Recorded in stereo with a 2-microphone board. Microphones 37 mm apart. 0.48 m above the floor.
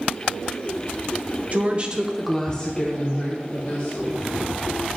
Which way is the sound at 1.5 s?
40° right (ahead or behind).